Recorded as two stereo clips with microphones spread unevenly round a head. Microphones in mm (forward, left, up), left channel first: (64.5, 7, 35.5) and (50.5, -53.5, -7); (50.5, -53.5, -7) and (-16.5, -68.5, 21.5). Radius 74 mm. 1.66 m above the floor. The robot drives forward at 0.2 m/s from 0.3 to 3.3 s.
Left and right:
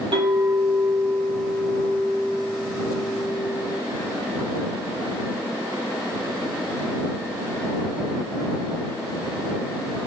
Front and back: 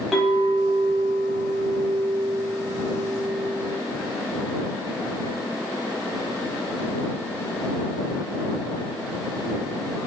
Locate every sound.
0.1 s a clink: 120° right, 0.9 m; by 3.7 s 150° right, 1.2 m